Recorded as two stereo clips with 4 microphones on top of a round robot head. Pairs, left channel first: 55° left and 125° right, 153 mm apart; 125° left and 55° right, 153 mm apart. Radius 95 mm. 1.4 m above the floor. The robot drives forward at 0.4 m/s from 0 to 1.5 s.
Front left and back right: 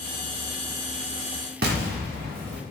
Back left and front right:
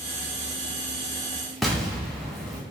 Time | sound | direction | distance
1.6 | an explosion | 145° right | 0.8 m